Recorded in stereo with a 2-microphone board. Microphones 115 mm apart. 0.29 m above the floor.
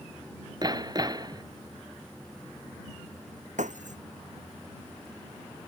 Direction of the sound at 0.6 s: 35° right (ahead or behind).